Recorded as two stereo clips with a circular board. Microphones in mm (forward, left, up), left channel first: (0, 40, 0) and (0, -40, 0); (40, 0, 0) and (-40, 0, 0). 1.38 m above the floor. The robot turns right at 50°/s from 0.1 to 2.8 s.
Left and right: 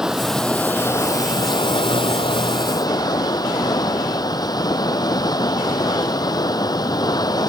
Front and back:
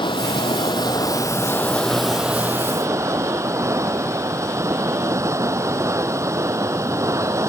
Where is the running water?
5° right; by 7.5 s 130° left.